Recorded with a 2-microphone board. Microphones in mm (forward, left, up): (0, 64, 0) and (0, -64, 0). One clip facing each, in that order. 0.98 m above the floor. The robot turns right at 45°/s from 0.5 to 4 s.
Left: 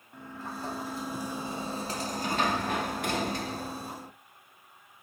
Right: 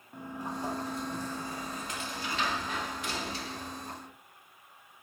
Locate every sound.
0.1 s a sliding door: 20° right, 0.6 m; by 4.1 s 140° left, 0.6 m